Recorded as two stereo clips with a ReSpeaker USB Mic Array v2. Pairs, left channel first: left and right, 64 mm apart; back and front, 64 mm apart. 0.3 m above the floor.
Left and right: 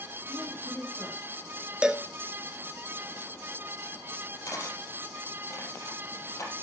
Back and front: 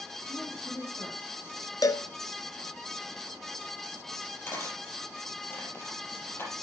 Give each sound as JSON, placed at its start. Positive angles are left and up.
{"t": 0.3, "sound": "a woman speaking", "azimuth_deg": 160, "distance_m": 7.5}
{"t": 1.8, "sound": "a cowbell", "azimuth_deg": -165, "distance_m": 0.8}
{"t": 4.5, "sound": "cutlery clinking", "azimuth_deg": 130, "distance_m": 5.5}